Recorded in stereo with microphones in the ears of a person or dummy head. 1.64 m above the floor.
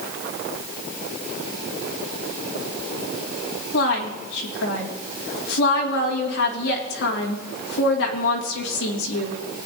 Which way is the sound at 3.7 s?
65° left (ahead or behind).